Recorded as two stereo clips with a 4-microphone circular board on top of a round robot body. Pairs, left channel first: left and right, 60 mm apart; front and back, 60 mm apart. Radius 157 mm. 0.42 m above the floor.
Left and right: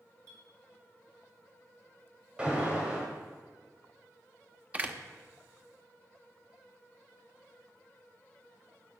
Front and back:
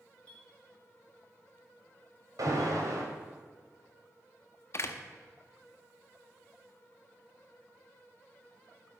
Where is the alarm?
165° right, 2.5 m.